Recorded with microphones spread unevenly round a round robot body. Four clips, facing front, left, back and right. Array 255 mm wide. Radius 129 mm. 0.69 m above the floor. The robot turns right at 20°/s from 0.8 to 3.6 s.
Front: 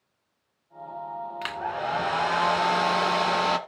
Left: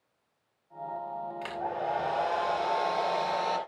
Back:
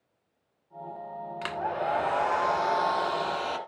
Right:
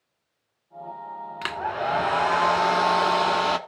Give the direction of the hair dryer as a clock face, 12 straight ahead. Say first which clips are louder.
Right 6 dB, back 1 dB; 3 o'clock.